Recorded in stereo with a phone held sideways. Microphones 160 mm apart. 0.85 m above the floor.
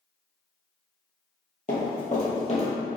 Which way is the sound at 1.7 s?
60° left (ahead or behind).